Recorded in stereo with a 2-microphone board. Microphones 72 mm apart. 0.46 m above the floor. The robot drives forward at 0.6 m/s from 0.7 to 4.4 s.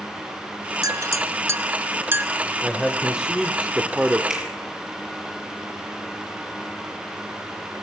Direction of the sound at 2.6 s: 10° right (ahead or behind).